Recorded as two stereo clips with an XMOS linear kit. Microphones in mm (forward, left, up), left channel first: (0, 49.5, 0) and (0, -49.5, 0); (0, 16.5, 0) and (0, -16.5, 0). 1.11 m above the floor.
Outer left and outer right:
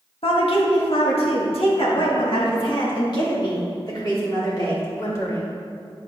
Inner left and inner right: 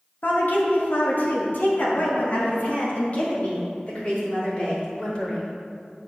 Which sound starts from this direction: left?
A woman speaking, at 0.2 s.